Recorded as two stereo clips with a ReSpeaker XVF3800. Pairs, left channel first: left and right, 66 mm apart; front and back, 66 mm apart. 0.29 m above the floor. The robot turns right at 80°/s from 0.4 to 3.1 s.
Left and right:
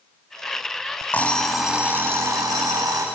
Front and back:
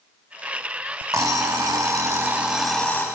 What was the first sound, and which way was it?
An alarm clock, 145° left.